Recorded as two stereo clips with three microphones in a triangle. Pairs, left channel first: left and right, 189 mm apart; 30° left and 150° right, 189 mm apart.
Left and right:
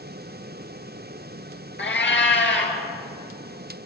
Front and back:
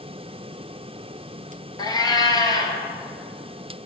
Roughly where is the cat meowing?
Left.